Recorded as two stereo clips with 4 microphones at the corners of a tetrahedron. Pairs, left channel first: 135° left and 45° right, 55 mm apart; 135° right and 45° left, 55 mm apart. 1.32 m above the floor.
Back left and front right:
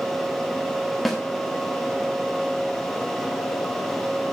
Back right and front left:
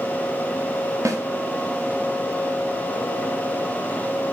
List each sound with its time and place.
1.1 s a snare drum: 50° left, 1.5 m